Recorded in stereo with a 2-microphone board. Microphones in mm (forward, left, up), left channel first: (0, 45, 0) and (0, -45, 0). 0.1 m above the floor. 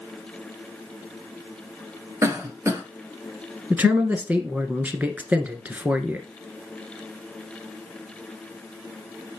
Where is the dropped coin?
I don't hear a dropped coin.